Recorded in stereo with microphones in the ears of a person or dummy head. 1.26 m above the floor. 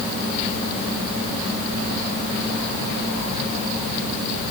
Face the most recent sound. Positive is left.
No sound to turn to.